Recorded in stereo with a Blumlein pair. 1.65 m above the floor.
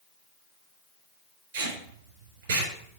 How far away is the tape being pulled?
About 3.5 m.